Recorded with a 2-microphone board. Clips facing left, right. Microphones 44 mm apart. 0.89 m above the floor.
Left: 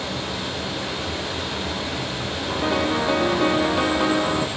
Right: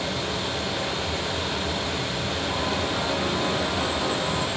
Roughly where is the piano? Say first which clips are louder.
Left 7 dB; left.